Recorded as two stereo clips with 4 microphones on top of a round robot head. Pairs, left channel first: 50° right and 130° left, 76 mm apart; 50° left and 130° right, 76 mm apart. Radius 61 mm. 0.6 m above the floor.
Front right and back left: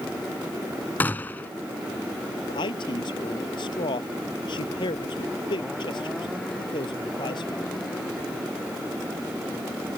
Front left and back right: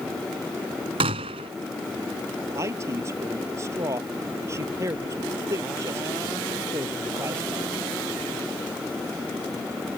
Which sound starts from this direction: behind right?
A gunshot, at 1.0 s.